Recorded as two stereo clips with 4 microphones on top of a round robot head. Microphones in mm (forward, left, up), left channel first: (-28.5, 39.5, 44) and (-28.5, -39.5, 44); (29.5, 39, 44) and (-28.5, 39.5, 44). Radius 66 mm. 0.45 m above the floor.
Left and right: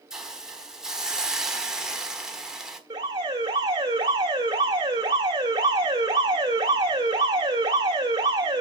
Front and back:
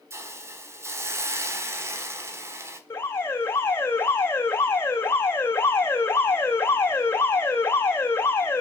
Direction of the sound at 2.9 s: 50° right.